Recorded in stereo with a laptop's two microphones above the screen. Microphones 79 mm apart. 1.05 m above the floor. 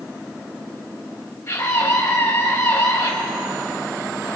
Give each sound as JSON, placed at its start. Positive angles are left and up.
{"t": 1.5, "sound": "a scream", "side_deg": 25, "distance_m": 6.0}